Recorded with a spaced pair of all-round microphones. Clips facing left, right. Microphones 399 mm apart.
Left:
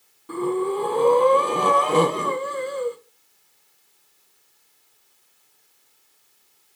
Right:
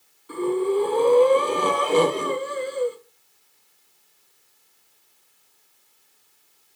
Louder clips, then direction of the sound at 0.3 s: Right 1 dB; 65° left (ahead or behind).